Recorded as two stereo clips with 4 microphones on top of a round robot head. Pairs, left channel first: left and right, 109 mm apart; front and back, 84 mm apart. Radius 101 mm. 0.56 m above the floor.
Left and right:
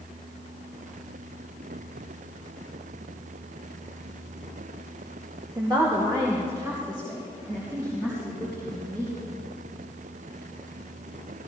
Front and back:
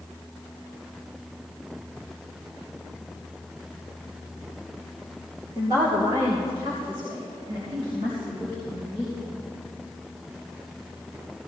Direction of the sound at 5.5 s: 135° right.